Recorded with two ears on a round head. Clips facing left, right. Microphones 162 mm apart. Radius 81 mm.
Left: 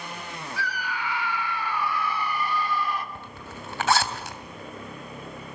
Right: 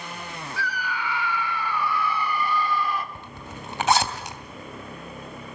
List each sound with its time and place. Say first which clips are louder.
0.6 s a scream: right 2 dB; 75° right (ahead or behind), 4 m; by 3.0 s 70° right (ahead or behind), 3.5 m
3.1 s a zipper: right 1 dB; 15° right (ahead or behind), 2.5 m